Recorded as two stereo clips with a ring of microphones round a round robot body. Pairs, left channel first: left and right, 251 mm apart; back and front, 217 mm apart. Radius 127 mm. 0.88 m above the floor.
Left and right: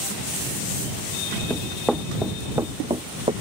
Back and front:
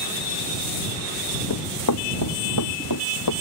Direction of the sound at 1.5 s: 175° left.